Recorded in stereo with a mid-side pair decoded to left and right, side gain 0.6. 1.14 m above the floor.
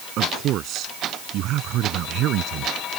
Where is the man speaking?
60° right; by 2.7 s 65° right.